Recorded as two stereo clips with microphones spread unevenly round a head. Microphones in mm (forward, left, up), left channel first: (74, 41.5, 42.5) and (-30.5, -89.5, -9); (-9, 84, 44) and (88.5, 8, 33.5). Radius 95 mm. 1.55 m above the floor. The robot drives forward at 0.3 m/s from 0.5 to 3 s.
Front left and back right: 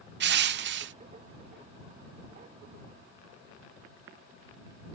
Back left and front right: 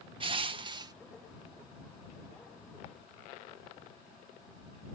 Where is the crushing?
100° right; by 0.9 s 105° right.